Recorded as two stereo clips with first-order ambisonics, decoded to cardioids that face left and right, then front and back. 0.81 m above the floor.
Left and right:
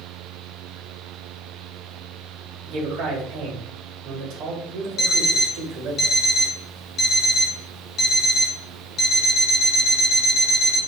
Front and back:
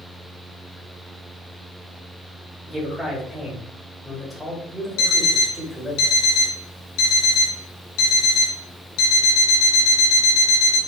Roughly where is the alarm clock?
Ahead left.